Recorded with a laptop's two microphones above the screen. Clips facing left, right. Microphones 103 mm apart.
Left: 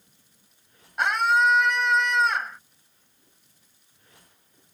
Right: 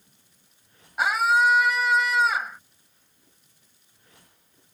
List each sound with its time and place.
1.0 s a scream: 5° right (ahead or behind)